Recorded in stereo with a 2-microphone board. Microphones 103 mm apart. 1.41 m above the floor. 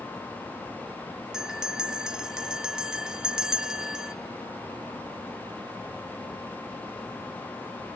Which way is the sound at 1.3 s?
5° right (ahead or behind).